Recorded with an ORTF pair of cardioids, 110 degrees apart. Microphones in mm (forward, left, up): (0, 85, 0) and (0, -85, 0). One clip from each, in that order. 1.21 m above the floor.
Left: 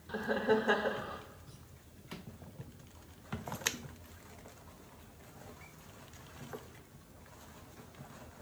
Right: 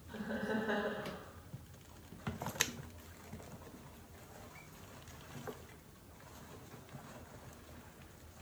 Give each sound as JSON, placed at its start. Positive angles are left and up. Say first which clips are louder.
{"t": 0.1, "sound": "laughter", "louder": "left 9 dB", "azimuth_deg": 45, "distance_m": 1.0}